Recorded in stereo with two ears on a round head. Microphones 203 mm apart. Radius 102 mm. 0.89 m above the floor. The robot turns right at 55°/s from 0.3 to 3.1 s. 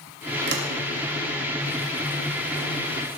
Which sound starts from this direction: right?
A sliding door, at 0.5 s.